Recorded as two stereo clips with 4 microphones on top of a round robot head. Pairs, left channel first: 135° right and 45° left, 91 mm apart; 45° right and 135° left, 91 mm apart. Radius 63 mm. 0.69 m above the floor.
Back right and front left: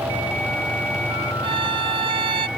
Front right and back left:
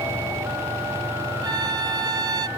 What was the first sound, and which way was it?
A violin, 85° left.